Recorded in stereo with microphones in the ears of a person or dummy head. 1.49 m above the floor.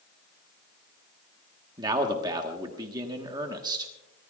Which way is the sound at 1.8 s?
20° right (ahead or behind).